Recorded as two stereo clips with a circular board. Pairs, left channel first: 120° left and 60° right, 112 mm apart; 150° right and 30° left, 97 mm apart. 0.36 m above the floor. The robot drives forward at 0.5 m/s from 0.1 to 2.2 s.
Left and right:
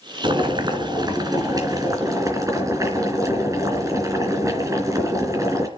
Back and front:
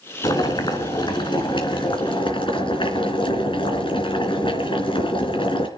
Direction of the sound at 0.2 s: 105° right.